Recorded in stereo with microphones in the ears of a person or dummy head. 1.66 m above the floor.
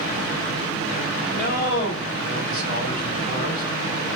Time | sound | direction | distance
1.3 | a man speaking | 50° left (ahead or behind) | 2 m